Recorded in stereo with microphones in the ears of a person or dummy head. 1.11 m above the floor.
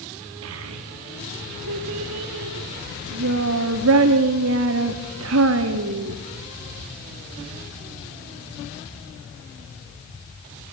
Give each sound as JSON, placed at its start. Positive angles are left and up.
{"t": 0.4, "sound": "a child speaking", "side_deg": -70, "distance_m": 1.3}